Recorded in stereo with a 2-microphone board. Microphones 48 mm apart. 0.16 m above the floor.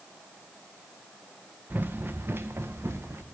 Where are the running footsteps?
40° right (ahead or behind), 0.7 m; by 3.2 s 65° right (ahead or behind), 1.5 m.